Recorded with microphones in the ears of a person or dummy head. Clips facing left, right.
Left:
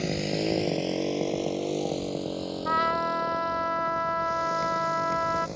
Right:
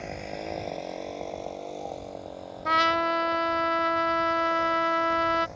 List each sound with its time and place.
0.0 s a motorcycle: 50° left (ahead or behind)
2.6 s a trumpet: 40° right (ahead or behind)